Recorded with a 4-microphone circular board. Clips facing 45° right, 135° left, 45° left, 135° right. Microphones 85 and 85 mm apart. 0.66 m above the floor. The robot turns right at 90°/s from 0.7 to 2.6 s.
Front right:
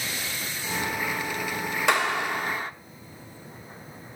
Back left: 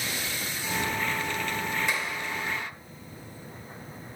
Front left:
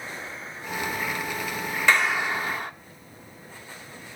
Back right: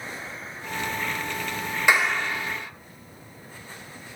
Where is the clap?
55° right, 0.9 m; by 2.7 s 5° left, 0.9 m.